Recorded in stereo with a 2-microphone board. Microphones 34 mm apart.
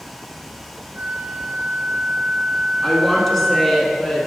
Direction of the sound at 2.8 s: 5° left (ahead or behind).